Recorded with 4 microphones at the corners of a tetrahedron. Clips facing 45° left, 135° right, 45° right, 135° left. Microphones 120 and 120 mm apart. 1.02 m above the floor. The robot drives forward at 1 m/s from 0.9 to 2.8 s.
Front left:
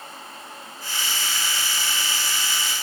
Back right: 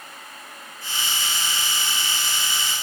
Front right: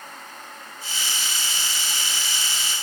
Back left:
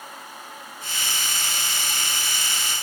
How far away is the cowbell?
I don't hear a cowbell.